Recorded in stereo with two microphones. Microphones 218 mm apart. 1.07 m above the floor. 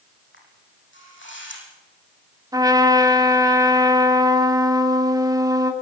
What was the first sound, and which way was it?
A camera shutter, 60° left (ahead or behind).